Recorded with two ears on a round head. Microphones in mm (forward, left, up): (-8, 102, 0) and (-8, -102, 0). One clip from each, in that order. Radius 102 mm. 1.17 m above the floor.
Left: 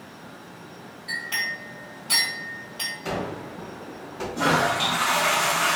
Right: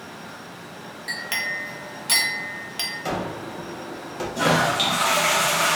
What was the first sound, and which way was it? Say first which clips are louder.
A clink: right 1 dB; 60° right (ahead or behind).